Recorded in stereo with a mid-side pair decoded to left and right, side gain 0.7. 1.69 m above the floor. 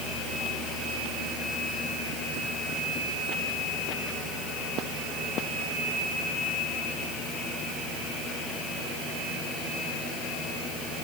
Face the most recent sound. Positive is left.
No sound to turn to.